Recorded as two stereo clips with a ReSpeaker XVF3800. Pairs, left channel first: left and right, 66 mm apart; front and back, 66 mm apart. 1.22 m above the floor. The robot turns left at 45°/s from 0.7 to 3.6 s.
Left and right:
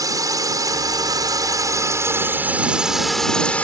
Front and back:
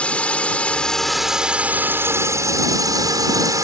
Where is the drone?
70° right; by 3.6 s 160° left.